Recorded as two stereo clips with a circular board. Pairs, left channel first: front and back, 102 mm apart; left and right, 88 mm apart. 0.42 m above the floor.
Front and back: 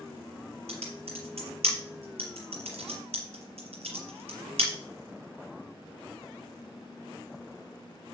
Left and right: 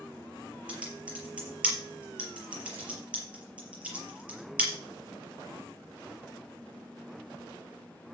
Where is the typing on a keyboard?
165° right, 5 m.